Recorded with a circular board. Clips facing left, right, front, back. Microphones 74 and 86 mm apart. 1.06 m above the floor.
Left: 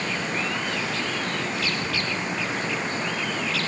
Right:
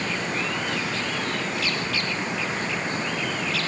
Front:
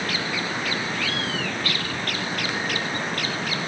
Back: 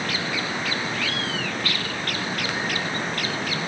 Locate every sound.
Only background noise.